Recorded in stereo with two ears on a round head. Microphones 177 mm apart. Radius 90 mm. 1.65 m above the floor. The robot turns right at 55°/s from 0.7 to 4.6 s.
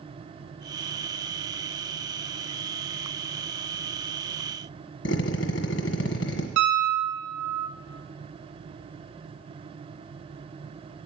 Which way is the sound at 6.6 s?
65° right (ahead or behind).